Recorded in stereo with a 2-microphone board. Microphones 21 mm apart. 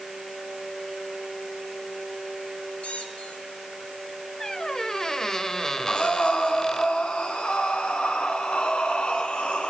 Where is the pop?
No pop in this recording.